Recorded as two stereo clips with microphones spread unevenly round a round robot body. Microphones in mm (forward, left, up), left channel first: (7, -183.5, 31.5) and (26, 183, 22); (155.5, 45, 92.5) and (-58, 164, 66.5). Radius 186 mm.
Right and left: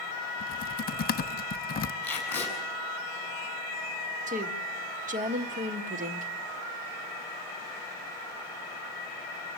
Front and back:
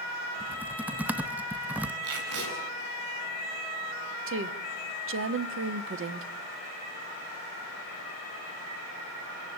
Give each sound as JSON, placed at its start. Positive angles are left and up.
{"t": 0.4, "sound": "typing on a keyboard", "azimuth_deg": -140, "distance_m": 0.6}
{"t": 2.0, "sound": "tape being pulled", "azimuth_deg": 180, "distance_m": 8.5}
{"t": 4.3, "sound": "a woman speaking", "azimuth_deg": 155, "distance_m": 1.3}